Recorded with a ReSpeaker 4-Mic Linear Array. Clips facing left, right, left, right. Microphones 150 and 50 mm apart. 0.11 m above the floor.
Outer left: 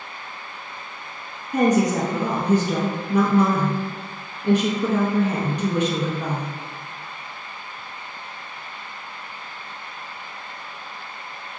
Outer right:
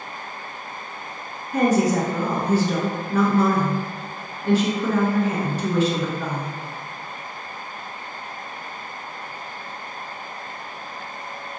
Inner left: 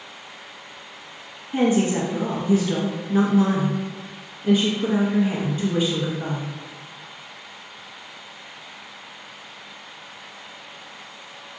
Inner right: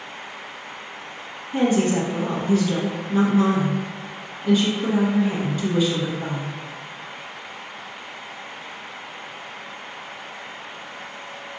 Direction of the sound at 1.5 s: 20° left (ahead or behind).